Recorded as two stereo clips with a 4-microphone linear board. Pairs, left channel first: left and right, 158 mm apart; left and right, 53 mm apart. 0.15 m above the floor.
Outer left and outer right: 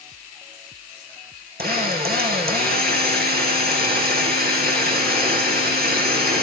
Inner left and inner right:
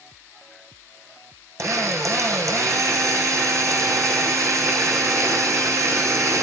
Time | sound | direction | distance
1.6 | a drill | 80° right | 4 m